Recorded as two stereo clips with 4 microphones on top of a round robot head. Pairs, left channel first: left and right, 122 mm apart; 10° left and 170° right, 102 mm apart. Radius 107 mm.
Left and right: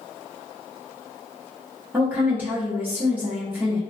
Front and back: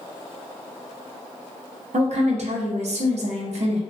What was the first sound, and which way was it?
A woman speaking, 165° right.